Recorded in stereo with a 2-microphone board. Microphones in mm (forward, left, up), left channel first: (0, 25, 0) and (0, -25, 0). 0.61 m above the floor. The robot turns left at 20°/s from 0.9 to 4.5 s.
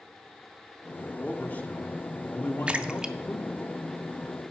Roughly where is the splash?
Right.